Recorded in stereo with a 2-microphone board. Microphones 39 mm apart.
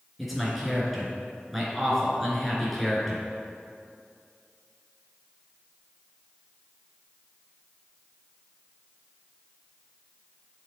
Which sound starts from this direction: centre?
A man speaking, at 0.2 s.